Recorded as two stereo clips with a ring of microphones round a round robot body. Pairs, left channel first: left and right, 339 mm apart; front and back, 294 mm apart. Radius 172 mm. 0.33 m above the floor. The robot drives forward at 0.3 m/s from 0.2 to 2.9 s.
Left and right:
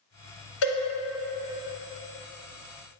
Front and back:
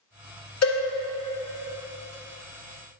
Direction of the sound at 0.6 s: 35° left.